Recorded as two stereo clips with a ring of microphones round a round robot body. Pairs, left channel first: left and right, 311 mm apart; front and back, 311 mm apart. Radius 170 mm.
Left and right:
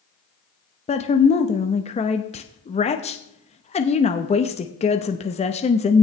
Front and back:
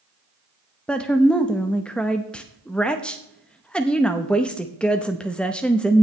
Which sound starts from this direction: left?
A woman speaking, at 0.9 s.